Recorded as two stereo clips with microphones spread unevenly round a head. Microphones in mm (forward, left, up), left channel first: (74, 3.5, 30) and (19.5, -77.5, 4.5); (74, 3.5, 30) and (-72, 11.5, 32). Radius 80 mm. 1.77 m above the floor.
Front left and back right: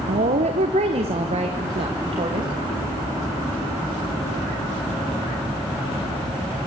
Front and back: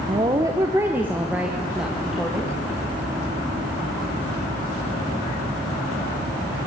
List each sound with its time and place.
0.1 s a woman speaking: 125° right, 1.2 m; by 2.5 s 95° right, 2.5 m